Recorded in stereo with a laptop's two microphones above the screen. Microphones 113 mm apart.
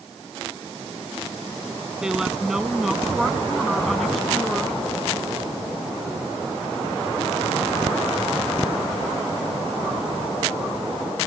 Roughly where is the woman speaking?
Centre.